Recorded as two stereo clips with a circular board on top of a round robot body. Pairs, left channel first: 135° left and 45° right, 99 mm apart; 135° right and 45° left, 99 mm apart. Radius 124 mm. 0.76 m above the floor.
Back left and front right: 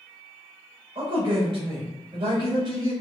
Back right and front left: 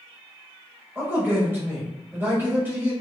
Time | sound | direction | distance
0.9 | a man speaking | 20° right | 1.4 m